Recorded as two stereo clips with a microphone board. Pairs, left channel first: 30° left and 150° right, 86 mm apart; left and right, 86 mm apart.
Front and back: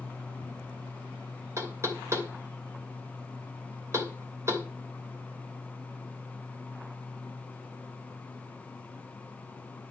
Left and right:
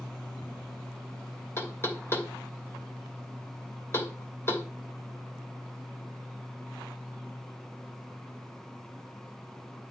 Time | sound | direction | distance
1.6 | knocking | 150° left | 2.5 m